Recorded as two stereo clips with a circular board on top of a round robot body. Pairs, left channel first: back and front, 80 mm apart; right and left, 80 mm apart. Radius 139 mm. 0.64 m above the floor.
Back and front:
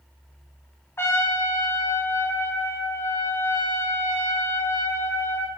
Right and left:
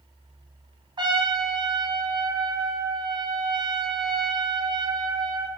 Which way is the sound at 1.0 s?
120° left.